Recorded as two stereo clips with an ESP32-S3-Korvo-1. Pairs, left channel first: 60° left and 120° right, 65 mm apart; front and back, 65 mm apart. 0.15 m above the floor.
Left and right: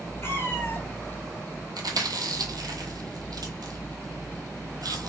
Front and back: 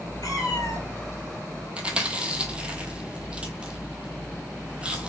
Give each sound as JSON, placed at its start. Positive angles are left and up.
{"t": 0.2, "sound": "a cat meowing", "azimuth_deg": 15, "distance_m": 1.3}
{"t": 1.8, "sound": "chewing", "azimuth_deg": -105, "distance_m": 0.7}